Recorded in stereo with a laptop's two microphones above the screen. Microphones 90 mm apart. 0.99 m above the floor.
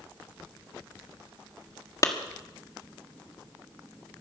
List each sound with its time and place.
2.0 s a clap: 40° left (ahead or behind), 1.7 m